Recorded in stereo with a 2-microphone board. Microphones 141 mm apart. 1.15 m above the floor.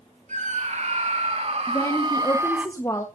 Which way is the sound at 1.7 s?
25° left (ahead or behind).